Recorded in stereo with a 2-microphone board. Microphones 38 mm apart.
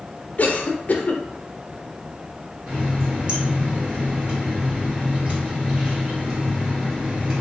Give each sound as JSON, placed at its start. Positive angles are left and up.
{"t": 0.4, "sound": "a cough", "side_deg": 40, "distance_m": 0.6}
{"t": 2.7, "sound": "a running tap", "side_deg": -30, "distance_m": 1.1}